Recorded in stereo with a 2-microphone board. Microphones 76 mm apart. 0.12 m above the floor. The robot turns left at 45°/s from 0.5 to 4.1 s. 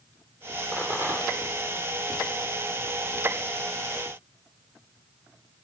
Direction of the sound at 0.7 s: 15° right.